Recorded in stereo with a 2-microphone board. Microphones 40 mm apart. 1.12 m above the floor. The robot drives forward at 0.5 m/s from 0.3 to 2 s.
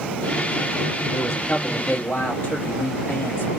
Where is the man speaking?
70° left (ahead or behind), 2 m; by 3.5 s 75° left (ahead or behind), 2 m.